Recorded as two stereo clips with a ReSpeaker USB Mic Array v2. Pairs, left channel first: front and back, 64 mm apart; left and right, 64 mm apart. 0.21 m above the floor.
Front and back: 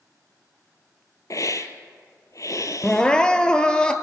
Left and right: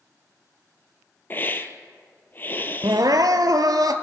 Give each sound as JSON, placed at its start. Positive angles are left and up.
{"t": 1.3, "sound": "a hiss", "azimuth_deg": 30, "distance_m": 0.9}
{"t": 2.8, "sound": "crying", "azimuth_deg": -75, "distance_m": 0.8}